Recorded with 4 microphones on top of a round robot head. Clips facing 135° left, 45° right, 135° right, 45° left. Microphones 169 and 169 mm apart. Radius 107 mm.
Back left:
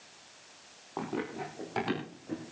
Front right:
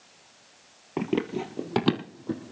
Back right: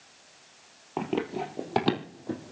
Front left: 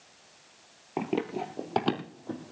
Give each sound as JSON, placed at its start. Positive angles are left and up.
{"t": 1.0, "sound": "running footsteps", "azimuth_deg": -35, "distance_m": 1.6}